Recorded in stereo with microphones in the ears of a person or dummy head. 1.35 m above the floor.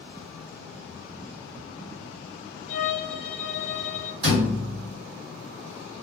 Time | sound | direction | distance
2.7 | a violin | 40° left (ahead or behind) | 0.6 m
4.2 | a thud | 35° right (ahead or behind) | 1.9 m